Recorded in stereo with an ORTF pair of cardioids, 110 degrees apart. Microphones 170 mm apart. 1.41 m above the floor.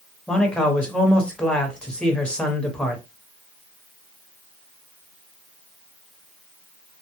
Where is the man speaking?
5° left, 0.9 m.